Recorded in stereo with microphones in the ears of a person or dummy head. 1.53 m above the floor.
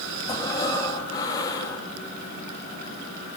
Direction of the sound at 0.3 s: 20° left (ahead or behind).